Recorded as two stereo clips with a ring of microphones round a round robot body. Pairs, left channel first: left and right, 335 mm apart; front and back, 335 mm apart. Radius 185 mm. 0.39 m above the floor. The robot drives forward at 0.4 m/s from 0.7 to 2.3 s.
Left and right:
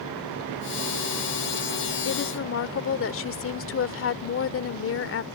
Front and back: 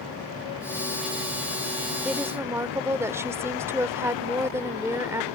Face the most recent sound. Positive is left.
turn(degrees=100)